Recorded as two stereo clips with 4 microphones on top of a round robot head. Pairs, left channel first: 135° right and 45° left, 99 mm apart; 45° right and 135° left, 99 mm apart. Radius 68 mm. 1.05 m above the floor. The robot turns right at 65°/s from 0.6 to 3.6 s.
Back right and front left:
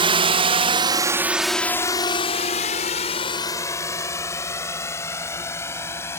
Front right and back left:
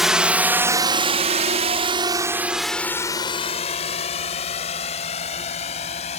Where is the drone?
45° left; by 6.2 s 65° right.